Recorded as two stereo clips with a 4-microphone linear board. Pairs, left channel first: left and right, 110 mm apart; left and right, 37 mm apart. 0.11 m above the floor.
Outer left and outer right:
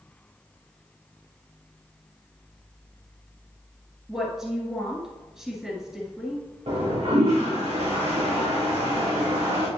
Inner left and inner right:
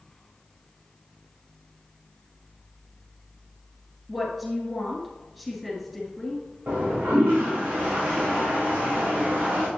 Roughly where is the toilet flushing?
Right.